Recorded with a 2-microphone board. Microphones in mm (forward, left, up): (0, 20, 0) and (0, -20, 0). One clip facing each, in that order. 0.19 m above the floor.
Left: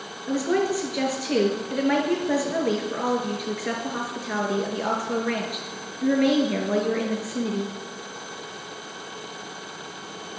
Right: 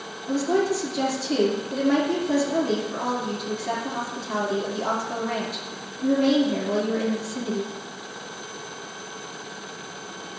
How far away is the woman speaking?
About 3 m.